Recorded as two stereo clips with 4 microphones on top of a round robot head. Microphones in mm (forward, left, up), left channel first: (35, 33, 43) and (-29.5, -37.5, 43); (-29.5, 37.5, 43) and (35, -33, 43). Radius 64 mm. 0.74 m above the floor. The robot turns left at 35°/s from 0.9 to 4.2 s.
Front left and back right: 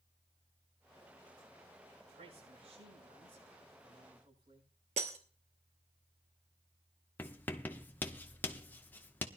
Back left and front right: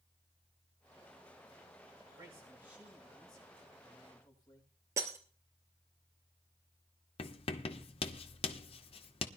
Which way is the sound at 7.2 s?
120° left.